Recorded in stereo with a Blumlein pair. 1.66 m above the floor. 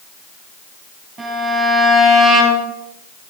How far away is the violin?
About 6.5 m.